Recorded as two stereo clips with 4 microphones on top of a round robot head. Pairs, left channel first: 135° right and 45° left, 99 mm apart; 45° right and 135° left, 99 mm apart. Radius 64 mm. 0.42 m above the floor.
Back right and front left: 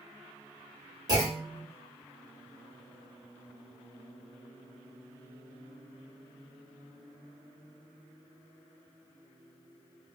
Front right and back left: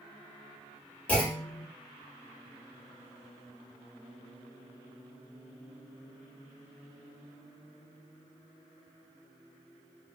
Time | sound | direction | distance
1.1 | a clunk | 20° left | 1.4 m